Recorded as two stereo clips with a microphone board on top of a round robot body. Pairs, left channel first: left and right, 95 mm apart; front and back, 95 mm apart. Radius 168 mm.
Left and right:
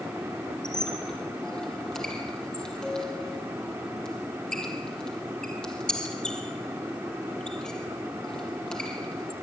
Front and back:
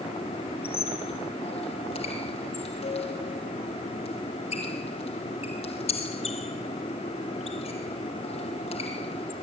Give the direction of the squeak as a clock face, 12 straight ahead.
12 o'clock.